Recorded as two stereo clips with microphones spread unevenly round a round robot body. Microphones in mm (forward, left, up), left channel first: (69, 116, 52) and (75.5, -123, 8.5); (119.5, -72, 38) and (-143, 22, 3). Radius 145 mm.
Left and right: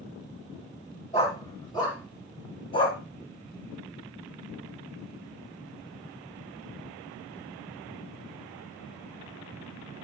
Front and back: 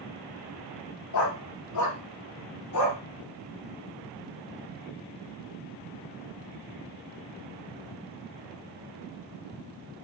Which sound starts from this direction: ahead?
A dog barking, at 1.1 s.